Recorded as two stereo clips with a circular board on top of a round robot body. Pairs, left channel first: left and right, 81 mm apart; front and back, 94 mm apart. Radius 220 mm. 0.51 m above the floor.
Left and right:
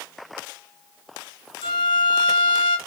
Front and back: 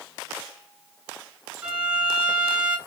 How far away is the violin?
About 1.8 m.